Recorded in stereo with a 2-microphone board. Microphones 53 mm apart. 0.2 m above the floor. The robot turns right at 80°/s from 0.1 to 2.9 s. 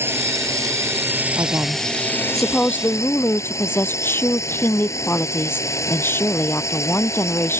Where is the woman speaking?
75° right; by 7.6 s 45° left.